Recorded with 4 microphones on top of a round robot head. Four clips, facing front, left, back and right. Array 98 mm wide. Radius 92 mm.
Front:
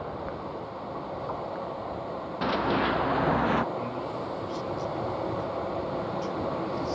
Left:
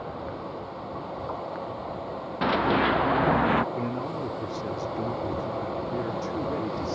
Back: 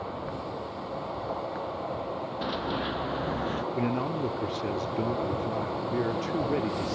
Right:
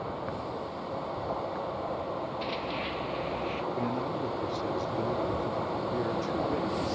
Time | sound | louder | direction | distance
2.4 | running footsteps | left 10 dB, front 7 dB | 70° left | ?
3.8 | a man speaking | left 1 dB, back 4 dB | 170° left | ?